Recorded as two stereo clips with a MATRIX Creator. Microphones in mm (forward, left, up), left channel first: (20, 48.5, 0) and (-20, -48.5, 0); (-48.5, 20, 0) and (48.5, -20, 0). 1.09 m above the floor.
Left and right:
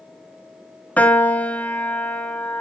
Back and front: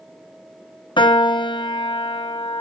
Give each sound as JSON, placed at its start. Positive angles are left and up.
{"t": 1.0, "sound": "a piano", "azimuth_deg": 140, "distance_m": 1.0}